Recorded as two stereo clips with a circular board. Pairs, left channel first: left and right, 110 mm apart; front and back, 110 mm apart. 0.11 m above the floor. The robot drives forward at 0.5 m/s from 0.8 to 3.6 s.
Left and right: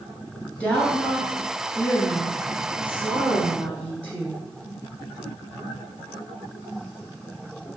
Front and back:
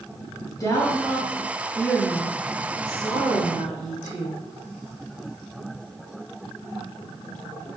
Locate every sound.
0.6 s a woman speaking: 20° left, 1.4 m; by 4.4 s 160° left, 1.3 m